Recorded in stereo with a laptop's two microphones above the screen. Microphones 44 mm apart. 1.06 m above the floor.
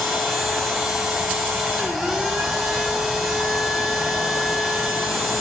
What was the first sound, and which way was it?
A machine running, centre (ahead or behind).